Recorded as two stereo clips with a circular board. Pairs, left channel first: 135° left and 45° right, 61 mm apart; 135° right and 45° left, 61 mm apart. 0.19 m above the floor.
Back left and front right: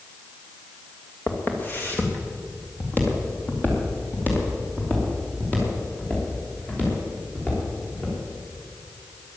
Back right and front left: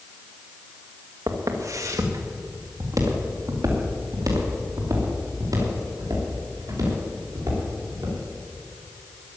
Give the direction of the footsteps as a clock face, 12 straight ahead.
9 o'clock.